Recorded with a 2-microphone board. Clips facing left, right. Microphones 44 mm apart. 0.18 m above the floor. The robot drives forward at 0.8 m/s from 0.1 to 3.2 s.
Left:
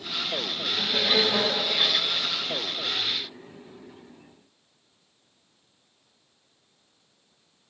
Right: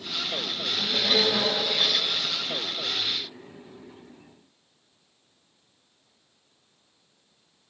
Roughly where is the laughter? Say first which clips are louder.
Left 1 dB; centre.